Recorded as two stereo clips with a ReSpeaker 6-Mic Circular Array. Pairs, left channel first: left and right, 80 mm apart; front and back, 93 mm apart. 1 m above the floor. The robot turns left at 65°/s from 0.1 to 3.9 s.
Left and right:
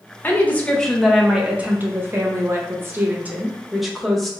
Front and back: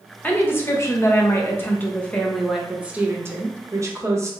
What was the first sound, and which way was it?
A woman speaking, 55° left.